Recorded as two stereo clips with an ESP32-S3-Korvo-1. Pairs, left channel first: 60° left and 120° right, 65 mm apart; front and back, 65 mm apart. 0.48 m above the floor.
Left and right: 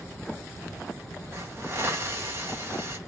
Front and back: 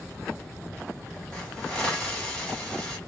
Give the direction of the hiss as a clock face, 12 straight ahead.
3 o'clock.